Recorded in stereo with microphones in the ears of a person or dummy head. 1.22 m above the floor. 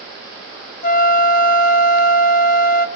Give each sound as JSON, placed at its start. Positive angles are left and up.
{"t": 0.8, "sound": "a flute", "side_deg": 50, "distance_m": 0.9}